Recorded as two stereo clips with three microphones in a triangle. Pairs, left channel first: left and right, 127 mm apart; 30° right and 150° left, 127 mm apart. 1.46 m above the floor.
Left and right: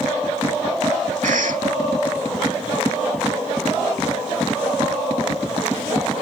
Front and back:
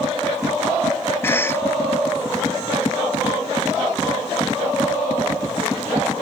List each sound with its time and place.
1.2 s a cough: 100° right